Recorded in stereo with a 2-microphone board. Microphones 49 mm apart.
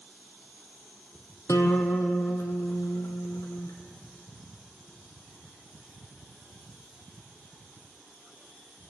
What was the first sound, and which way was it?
A guitar, 80° left.